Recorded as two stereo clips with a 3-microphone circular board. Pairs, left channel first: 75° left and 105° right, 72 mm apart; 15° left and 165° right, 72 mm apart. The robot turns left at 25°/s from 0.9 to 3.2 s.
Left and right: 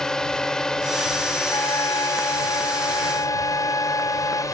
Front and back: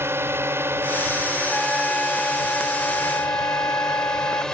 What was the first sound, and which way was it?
A drone, 155° left.